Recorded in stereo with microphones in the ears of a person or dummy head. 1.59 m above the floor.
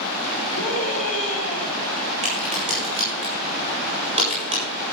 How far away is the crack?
About 8 m.